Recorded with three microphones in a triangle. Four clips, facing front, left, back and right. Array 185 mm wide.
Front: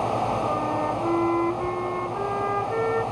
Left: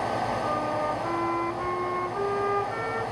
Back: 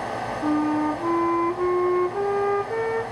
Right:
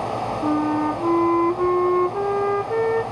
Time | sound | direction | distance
0.4 | a flute | 115° right | 0.9 m